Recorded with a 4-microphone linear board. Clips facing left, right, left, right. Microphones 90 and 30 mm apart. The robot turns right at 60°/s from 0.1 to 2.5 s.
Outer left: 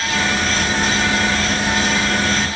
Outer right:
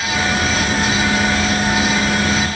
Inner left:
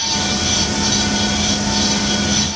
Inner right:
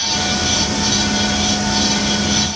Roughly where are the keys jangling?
I don't hear keys jangling.